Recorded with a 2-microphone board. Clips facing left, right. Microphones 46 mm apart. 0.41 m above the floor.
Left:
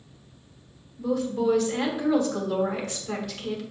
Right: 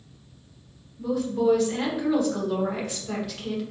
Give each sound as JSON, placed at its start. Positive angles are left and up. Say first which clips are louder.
{"t": 1.0, "sound": "a woman speaking", "louder": "right 1 dB", "side_deg": -5, "distance_m": 1.0}